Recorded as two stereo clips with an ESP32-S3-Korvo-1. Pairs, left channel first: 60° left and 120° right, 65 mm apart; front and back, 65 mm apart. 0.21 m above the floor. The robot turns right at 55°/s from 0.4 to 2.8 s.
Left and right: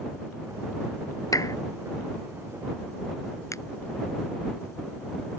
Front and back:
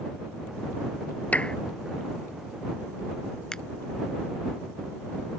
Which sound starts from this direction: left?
A finger snap, at 3.5 s.